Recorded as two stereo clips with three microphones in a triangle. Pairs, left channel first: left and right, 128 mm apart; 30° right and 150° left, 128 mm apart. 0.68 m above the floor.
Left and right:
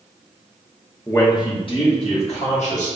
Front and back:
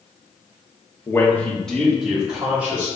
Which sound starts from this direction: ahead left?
A man speaking, at 1.1 s.